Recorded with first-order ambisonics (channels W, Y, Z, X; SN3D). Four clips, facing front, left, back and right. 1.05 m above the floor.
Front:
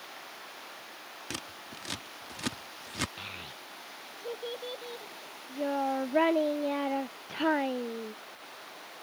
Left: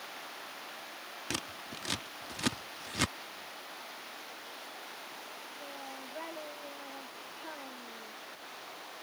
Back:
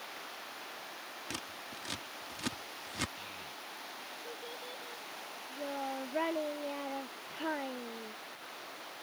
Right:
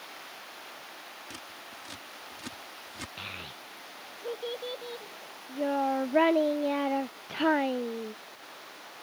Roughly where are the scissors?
Left.